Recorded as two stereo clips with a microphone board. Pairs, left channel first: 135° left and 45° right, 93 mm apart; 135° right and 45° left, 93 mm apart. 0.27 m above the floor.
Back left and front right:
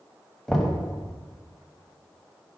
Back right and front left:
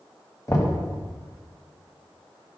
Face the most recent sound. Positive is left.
turn(degrees=-140)